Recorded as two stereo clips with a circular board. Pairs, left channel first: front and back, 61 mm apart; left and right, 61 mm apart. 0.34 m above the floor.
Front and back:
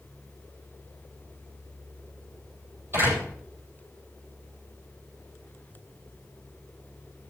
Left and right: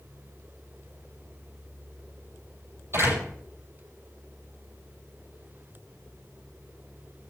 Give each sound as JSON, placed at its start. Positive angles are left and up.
{"t": 2.9, "sound": "a door slam", "azimuth_deg": -130, "distance_m": 8.5}